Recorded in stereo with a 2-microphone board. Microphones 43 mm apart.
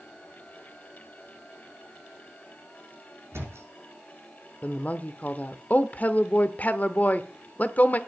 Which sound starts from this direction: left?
A woman speaking, at 4.6 s.